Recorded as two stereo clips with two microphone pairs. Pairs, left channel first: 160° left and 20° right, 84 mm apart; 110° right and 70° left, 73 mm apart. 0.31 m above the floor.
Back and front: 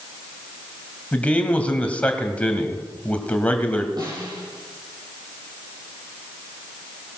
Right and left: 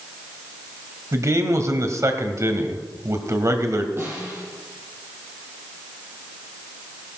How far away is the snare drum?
About 6.5 m.